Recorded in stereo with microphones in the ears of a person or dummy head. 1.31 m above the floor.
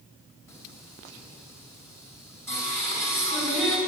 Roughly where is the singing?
Centre.